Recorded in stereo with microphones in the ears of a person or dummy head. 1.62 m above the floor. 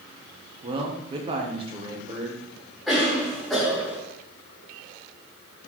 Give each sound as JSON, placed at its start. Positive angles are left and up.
{"t": 0.6, "sound": "a man speaking", "side_deg": -30, "distance_m": 0.9}
{"t": 2.9, "sound": "a cough", "side_deg": 0, "distance_m": 1.5}